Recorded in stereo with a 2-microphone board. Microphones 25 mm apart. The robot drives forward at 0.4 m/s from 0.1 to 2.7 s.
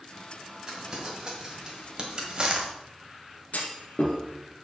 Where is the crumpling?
25° right (ahead or behind), 2.5 m; by 2.7 s 35° right (ahead or behind), 1.6 m.